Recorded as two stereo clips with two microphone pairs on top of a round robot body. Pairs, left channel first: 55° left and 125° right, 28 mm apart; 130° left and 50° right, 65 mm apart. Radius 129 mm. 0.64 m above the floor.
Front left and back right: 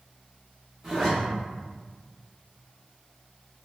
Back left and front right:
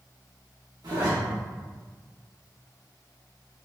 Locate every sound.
0.8 s a zipper: 45° right, 1.4 m